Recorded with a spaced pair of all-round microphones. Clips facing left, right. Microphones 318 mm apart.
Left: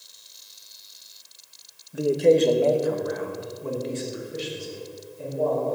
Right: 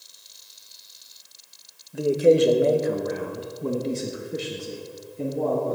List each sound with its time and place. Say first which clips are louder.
1.9 s a man speaking: right 1 dB; 5° left (ahead or behind), 1.0 m; by 5.8 s 75° right (ahead or behind), 2 m